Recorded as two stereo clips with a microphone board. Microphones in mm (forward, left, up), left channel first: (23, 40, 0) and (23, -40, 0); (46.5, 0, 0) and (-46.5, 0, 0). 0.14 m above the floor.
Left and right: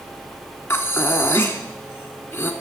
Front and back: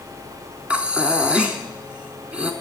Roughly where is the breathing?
Behind left.